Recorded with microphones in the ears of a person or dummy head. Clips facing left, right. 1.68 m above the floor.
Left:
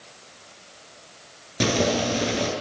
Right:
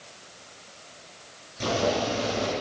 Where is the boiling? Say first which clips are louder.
Left 3 dB; 80° left, 8 m.